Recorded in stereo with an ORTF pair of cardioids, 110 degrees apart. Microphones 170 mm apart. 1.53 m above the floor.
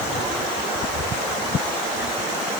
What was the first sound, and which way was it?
Only background noise.